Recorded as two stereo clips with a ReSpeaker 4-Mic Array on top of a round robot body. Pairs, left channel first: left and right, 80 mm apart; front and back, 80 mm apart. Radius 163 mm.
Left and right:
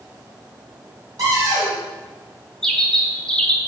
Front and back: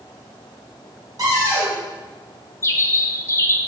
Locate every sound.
1.2 s a cupboard door: 135° right, 1.3 m
2.6 s a bird: 15° left, 0.6 m